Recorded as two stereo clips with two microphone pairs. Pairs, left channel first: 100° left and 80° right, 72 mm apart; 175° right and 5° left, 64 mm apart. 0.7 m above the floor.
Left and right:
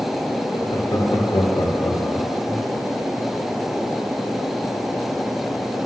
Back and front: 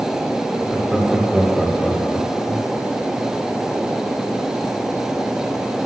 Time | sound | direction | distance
0.5 | laughter | 80° left | 2.0 m